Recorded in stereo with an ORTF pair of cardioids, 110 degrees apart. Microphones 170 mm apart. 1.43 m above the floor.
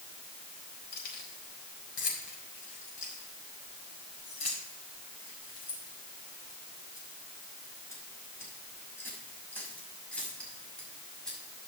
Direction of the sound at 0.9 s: 60° left.